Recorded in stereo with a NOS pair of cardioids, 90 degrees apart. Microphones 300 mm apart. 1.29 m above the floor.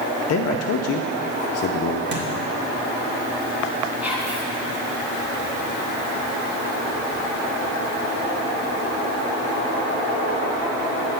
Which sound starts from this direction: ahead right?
A thud, at 2.1 s.